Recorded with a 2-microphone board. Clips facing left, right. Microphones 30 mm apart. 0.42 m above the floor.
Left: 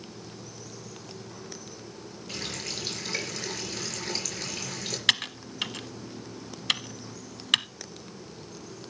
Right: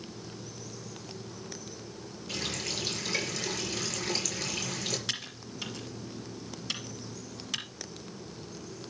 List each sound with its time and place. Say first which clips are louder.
2.3 s a running tap: right 1 dB; 10° left (ahead or behind), 5 m
5.1 s typing on a keyboard: left 11 dB; 75° left (ahead or behind), 1.0 m